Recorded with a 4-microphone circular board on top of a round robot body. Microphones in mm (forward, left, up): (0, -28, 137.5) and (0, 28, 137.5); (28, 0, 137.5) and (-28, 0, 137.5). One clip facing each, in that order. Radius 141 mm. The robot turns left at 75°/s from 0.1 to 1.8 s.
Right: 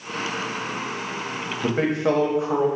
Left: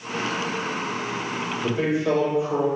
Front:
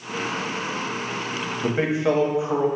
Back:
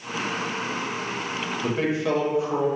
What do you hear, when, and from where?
1.6 s a man speaking: 50° right, 0.9 m; by 2.7 s 65° right, 0.9 m